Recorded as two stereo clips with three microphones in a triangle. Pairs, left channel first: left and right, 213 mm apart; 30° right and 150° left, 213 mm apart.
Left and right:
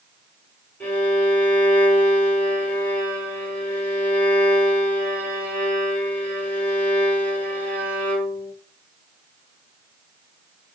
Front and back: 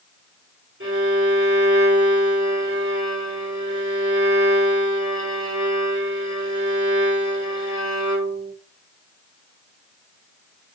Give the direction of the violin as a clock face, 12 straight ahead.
6 o'clock.